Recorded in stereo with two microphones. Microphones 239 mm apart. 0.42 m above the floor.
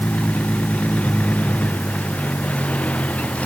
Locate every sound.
0.0 s a vehicle: 5° left (ahead or behind)